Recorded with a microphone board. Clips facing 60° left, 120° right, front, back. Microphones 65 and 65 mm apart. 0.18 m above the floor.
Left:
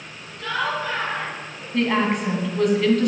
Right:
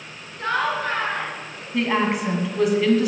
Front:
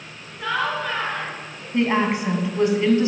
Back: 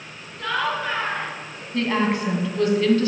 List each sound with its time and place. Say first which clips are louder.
0.4 s laughter: right 2 dB, even; 75° right, 2.5 m; by 1.6 s 125° right, 3 m
1.7 s a woman speaking: left 1 dB, front 2 dB; 40° right, 1.3 m